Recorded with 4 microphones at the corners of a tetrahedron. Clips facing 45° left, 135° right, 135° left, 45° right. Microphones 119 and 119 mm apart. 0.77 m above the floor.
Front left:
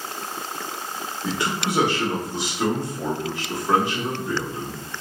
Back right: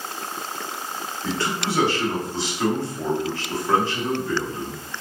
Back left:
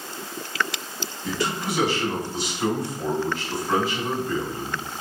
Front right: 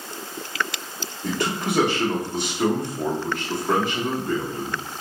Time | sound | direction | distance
1.2 | a man speaking | 25° right | 0.9 m